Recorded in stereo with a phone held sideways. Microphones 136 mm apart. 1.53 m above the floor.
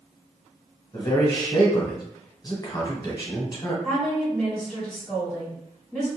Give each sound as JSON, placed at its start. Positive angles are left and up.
{"t": 0.9, "sound": "a man speaking", "side_deg": 30, "distance_m": 1.0}
{"t": 3.8, "sound": "a woman speaking", "side_deg": -5, "distance_m": 1.5}